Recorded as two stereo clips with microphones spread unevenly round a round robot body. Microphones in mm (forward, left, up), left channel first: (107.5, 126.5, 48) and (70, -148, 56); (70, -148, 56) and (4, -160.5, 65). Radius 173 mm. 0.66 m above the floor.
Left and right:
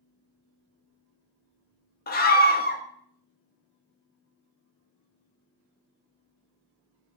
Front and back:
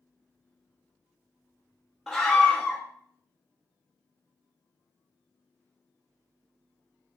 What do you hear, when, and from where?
2.1 s a scream: 90° left, 0.6 m